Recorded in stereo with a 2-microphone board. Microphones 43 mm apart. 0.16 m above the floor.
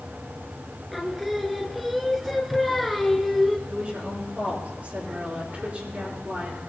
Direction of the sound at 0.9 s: Centre (ahead or behind).